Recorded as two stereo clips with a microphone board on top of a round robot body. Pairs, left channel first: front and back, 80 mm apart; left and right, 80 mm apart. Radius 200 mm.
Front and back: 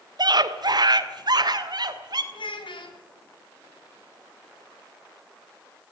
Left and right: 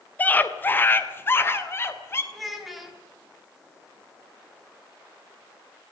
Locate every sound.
0.2 s a scream: 160° left, 2 m; by 2.2 s 150° left, 4 m
2.3 s a child speaking: straight ahead, 5 m